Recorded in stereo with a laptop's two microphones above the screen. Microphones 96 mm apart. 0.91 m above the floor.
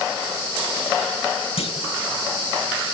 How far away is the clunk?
About 1.3 m.